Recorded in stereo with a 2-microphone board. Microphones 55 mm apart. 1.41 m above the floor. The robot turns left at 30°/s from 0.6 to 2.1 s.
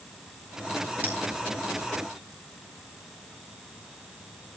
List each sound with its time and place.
1.0 s a bell: 35° right (ahead or behind), 5.5 m